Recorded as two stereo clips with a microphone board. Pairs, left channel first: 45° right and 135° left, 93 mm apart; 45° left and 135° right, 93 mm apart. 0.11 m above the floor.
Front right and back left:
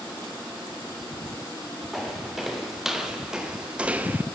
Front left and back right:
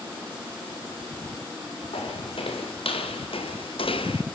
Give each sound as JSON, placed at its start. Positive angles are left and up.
{"t": 1.9, "sound": "footsteps", "azimuth_deg": 45, "distance_m": 5.0}